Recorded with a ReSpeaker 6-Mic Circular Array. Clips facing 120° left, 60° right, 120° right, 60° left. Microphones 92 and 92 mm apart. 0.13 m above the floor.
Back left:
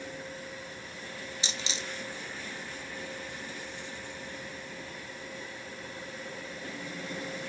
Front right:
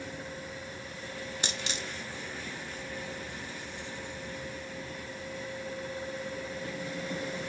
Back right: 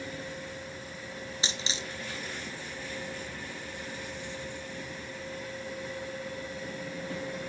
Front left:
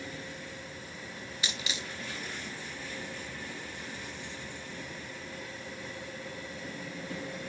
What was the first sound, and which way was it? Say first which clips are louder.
A dropped coin: front right 1 dB, back right 1 dB; 65° right.